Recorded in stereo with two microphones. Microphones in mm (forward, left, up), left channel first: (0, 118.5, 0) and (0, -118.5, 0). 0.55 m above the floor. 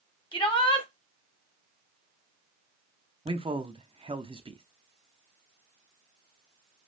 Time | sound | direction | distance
0.3 | a shout | 20° left (ahead or behind) | 1.6 m
3.2 | a man speaking | 25° right (ahead or behind) | 0.6 m